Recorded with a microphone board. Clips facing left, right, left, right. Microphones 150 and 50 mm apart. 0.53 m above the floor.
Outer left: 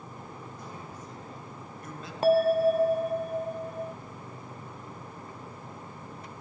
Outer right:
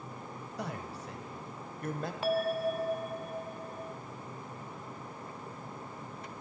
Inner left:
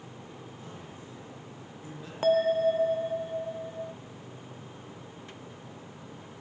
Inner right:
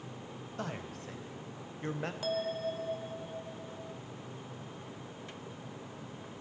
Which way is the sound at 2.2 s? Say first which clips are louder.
Outer left 9 dB, inner left 12 dB; 40° left (ahead or behind).